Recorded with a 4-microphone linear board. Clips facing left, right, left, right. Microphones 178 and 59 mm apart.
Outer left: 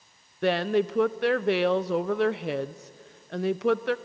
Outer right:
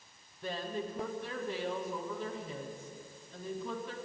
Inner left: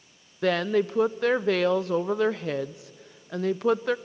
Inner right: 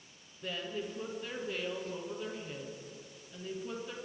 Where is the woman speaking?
80° left, 0.7 m.